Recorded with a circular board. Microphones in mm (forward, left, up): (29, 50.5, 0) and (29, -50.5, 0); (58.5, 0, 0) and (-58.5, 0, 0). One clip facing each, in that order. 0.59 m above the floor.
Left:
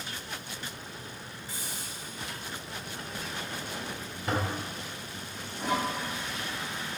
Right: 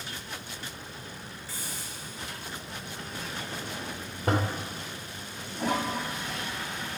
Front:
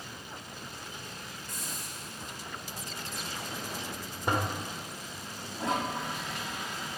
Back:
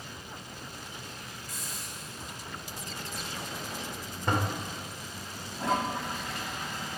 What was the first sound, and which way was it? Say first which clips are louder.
A hiss: even, even; 25° left.